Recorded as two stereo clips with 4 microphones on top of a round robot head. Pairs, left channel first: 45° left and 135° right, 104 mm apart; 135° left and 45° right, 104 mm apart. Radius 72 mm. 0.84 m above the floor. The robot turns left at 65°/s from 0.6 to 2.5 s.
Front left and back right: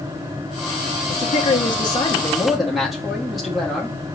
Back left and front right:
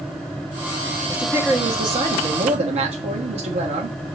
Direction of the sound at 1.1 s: 45° left.